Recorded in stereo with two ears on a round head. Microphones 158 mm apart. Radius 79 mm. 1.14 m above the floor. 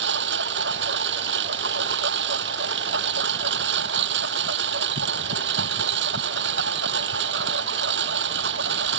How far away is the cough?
I don't hear a cough.